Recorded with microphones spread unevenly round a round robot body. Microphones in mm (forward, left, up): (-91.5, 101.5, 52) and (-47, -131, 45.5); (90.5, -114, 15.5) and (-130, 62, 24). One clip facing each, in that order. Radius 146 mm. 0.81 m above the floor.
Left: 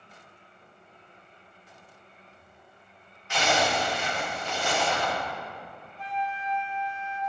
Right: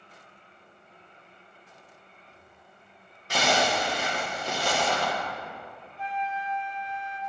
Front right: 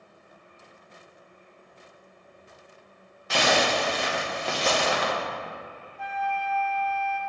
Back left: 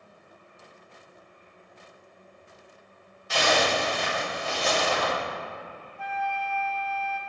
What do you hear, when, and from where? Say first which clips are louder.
3.3 s a zipper: right 1 dB, front right 1 dB; 35° right, 1.2 m
6.0 s a flute: even, front right 1 dB; 50° left, 0.7 m